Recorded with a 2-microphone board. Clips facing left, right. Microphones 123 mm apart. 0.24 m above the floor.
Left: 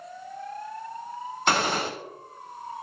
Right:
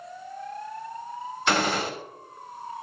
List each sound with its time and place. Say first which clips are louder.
1.5 s a gunshot: even; 45° left (ahead or behind), 2.0 m